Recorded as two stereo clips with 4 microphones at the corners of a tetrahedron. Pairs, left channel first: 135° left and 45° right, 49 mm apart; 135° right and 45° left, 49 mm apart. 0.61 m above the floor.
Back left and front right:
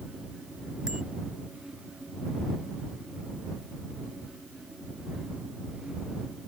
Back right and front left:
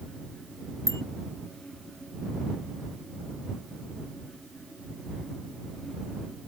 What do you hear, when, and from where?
0.9 s a bicycle bell: 120° right